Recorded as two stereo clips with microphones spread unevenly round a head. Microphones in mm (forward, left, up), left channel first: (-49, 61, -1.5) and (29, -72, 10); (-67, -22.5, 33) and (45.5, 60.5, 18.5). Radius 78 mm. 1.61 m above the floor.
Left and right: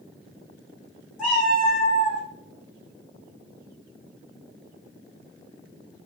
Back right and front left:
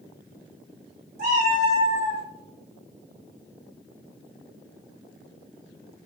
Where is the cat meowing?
30° left, 1.5 m; by 2.2 s 25° left, 1.2 m.